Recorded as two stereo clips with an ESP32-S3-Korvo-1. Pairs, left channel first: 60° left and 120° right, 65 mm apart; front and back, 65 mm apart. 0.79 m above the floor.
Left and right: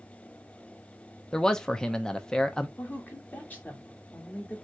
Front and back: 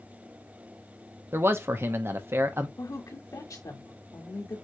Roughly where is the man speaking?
Behind left.